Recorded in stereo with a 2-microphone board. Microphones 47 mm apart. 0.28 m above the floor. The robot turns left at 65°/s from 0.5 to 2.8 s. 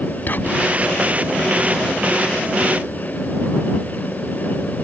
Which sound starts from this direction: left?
Whispering, at 0.3 s.